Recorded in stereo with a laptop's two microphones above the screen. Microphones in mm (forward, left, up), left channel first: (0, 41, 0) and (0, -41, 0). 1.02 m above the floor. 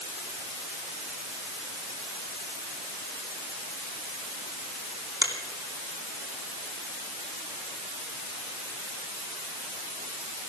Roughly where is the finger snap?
Right.